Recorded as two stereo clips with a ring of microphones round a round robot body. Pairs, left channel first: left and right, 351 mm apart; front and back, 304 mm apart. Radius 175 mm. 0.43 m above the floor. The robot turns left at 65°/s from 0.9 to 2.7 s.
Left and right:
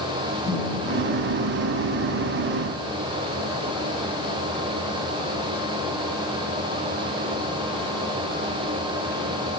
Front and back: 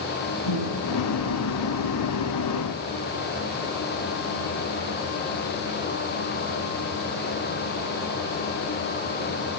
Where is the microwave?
5° left, 9.5 m; by 2.9 s 110° right, 9.5 m.